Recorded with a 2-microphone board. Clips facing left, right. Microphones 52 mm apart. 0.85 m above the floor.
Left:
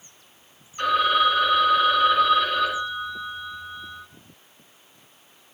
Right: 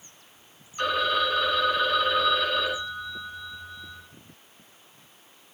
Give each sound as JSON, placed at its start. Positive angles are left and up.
{"t": 0.8, "sound": "a phone ringing", "side_deg": 10, "distance_m": 1.4}